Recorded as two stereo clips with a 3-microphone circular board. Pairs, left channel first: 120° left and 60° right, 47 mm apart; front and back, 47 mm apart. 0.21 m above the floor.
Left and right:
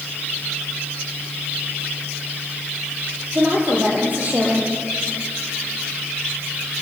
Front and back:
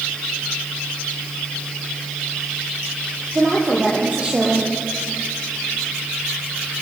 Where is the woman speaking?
115° right, 7.5 m.